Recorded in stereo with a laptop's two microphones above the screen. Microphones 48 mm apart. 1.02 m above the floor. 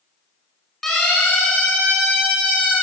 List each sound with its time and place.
0.8 s a siren: 5° left (ahead or behind), 9 m